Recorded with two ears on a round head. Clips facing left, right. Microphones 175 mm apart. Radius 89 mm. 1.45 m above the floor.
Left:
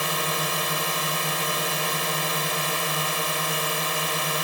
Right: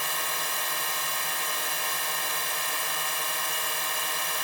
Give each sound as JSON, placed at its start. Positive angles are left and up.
{"t": 0.0, "sound": "a drone", "side_deg": 65}